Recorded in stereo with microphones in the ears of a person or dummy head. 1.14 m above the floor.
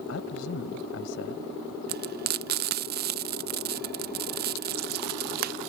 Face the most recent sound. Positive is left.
turn(degrees=-45)  # may be behind; listen again after turning